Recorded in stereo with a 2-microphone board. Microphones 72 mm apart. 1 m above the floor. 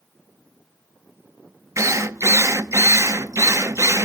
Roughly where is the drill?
Right.